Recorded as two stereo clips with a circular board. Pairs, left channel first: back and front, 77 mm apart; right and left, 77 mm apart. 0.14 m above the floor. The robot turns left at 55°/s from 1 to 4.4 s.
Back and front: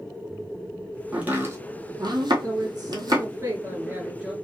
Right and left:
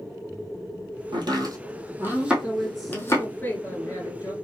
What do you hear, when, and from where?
1.1 s chopping: 80° left, 1.3 m; by 3.3 s 40° right, 1.3 m
2.4 s a woman speaking: 25° left, 2 m; by 4.3 s 80° right, 2 m